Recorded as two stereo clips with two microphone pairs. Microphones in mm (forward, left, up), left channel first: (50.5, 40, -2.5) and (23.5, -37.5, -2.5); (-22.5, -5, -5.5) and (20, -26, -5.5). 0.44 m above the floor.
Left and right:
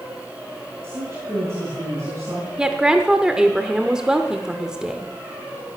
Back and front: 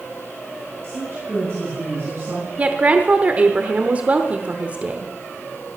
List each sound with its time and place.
0.8 s a woman speaking: 50° right, 4 m; by 2.5 s 55° right, 5 m
2.6 s a woman speaking: 35° right, 0.9 m